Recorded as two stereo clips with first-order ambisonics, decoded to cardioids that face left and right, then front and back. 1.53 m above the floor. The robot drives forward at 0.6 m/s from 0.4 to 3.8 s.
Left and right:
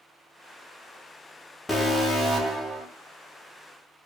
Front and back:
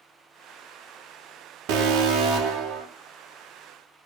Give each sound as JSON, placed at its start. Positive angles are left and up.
{"t": 1.7, "sound": "an alarm", "azimuth_deg": 175, "distance_m": 1.2}